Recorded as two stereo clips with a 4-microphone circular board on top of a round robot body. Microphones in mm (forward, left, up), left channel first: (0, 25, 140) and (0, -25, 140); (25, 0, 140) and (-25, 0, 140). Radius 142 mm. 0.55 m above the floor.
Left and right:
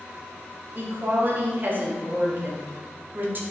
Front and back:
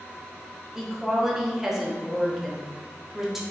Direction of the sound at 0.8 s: 105° right.